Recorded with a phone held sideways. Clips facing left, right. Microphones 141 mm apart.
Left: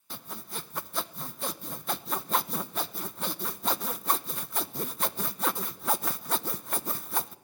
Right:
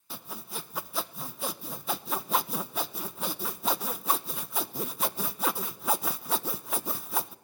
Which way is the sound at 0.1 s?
5° right (ahead or behind).